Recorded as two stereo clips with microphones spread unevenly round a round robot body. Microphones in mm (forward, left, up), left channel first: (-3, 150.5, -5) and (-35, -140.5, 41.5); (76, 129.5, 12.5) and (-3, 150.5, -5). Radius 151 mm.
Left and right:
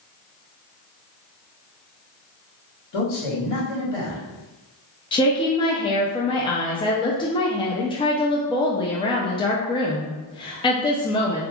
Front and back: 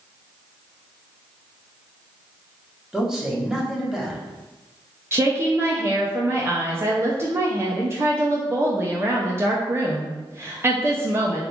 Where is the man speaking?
85° left, 1.5 m.